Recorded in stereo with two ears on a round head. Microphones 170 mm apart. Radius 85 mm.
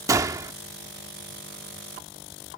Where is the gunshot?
15° right (ahead or behind).